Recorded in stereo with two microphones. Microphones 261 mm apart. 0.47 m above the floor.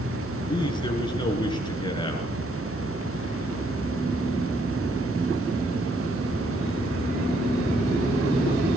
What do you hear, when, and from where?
0.4 s a man speaking: 15° left (ahead or behind), 7.5 m